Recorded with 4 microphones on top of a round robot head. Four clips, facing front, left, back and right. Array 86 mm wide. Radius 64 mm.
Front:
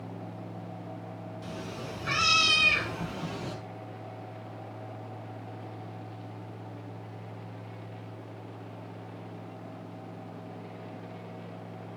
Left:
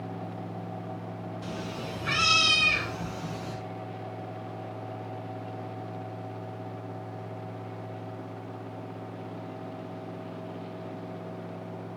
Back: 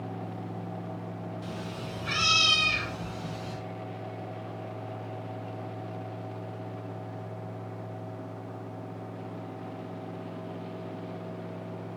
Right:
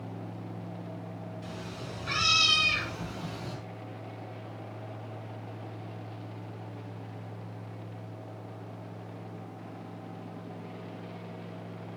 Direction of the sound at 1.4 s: 80° left.